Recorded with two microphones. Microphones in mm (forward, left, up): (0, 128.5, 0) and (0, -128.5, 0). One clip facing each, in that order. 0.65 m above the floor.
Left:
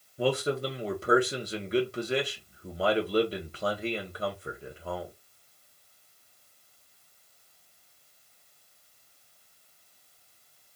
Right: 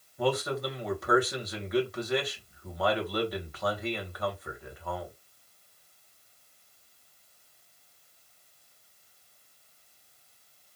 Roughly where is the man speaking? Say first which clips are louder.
Left 2 dB; left.